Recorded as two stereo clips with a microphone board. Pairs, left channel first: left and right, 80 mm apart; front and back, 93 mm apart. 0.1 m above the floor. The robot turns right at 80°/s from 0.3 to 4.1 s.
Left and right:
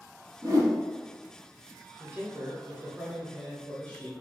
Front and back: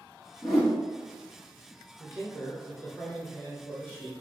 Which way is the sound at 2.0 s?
110° right.